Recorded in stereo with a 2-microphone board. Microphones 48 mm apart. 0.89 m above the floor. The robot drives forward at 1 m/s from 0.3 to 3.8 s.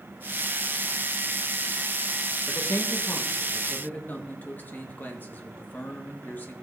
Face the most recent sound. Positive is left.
turn(degrees=45)  # may be behind; listen again after turning